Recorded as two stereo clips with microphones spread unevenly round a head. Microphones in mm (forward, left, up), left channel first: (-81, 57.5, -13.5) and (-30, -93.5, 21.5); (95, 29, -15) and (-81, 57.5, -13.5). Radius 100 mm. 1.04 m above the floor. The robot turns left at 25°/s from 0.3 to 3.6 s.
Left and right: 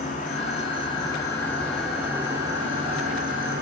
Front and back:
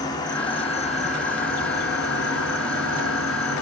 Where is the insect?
60° left, 1.4 m; by 3.6 s 25° right, 1.4 m.